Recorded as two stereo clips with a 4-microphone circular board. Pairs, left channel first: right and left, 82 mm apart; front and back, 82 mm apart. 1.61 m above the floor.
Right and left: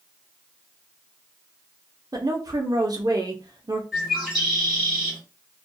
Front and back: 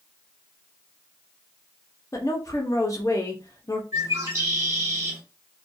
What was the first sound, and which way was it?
A woman speaking, 50° left.